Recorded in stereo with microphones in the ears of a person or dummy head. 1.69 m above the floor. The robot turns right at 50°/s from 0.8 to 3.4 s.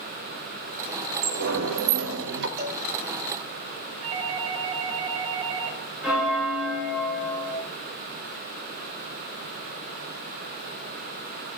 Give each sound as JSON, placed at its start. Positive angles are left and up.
{"t": 1.2, "sound": "a sliding door", "azimuth_deg": -130, "distance_m": 0.7}
{"t": 2.6, "sound": "a cowbell", "side_deg": -50, "distance_m": 0.8}
{"t": 4.0, "sound": "a doorbell", "side_deg": -40, "distance_m": 1.5}
{"t": 6.0, "sound": "a bell", "side_deg": -10, "distance_m": 3.0}